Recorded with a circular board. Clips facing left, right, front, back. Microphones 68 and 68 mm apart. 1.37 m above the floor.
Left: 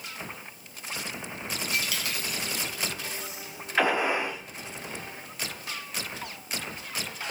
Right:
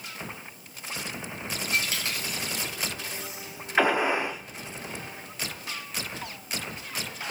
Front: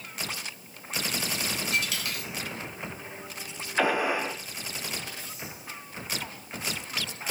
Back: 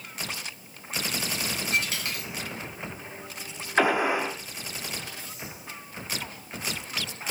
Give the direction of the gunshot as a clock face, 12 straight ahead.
5 o'clock.